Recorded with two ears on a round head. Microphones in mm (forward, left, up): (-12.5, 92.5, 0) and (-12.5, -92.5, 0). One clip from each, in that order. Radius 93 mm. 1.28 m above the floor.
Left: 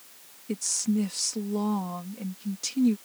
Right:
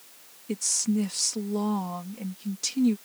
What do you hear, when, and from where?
0.5 s a woman speaking: 10° right (ahead or behind)